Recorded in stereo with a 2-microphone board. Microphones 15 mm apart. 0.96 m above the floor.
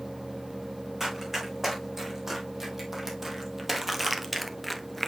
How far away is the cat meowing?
No cat meowing in this recording.